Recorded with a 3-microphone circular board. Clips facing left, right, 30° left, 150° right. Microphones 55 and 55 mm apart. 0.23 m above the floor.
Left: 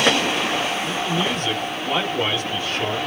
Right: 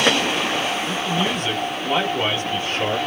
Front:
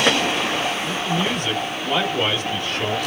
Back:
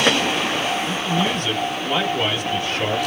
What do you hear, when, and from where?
0.8 s a man speaking: 10° right, 1.7 m; by 3.0 s 105° right, 1.6 m